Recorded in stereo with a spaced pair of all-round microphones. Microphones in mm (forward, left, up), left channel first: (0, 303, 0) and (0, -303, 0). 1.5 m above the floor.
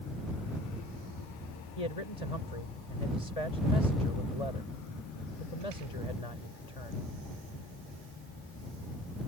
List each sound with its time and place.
1.8 s a man speaking: 75° left (ahead or behind)